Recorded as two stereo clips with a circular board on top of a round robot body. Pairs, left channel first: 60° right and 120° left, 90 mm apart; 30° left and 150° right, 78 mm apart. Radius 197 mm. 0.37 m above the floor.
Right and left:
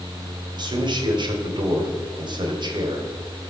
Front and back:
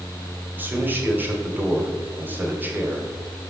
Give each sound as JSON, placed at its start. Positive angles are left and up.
{"t": 0.6, "sound": "a man speaking", "azimuth_deg": 145, "distance_m": 2.5}